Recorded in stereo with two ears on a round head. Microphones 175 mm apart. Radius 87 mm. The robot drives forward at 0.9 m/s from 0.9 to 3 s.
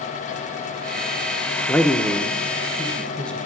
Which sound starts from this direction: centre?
A man speaking, at 1.7 s.